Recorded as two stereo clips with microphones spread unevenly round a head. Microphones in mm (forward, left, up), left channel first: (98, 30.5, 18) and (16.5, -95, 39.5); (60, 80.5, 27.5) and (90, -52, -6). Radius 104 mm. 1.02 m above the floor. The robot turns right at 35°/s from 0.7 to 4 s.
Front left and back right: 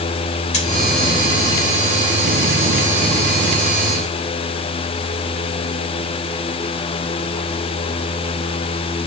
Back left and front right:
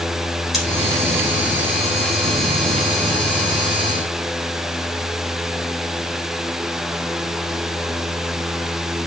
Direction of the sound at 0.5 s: 15° left.